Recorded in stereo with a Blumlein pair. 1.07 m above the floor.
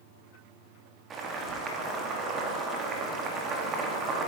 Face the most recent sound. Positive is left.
turn(degrees=-25)